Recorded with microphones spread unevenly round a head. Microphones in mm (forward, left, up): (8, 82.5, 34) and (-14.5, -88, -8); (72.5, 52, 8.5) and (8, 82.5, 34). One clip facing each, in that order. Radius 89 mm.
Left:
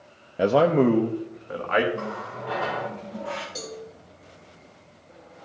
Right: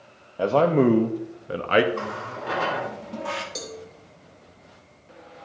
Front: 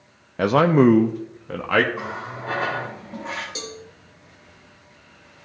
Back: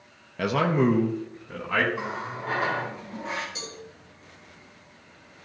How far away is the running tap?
About 1.9 m.